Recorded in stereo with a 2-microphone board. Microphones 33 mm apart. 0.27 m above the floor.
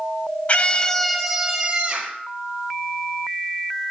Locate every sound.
0.5 s a scream: 40° left (ahead or behind), 1.3 m; by 2.2 s 35° right (ahead or behind), 2.5 m